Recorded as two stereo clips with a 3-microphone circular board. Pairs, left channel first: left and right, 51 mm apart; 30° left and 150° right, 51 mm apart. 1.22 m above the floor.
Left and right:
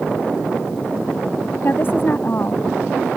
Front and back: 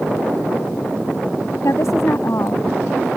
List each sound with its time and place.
1.6 s a woman speaking: 45° left; by 3.1 s 50° left